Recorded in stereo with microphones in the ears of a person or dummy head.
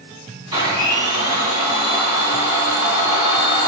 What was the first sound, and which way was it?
A blender, 25° right (ahead or behind).